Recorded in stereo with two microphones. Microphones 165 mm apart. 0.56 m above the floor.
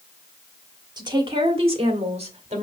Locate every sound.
1.0 s a woman speaking: 25° right (ahead or behind), 1.2 m; by 2.6 s 40° right (ahead or behind), 1.9 m